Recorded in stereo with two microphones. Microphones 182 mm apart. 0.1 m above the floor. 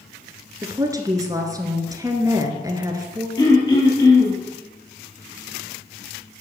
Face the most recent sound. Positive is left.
turn(degrees=20)  # may be behind; listen again after turning